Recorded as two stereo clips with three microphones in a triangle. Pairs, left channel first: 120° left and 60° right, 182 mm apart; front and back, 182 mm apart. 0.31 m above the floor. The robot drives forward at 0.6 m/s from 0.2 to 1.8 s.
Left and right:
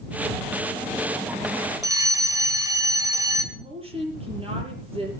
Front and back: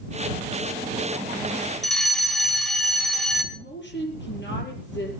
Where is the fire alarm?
85° right, 1.9 m.